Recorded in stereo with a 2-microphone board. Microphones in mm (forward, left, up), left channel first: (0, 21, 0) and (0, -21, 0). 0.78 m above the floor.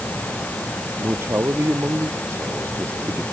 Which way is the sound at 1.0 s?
85° right.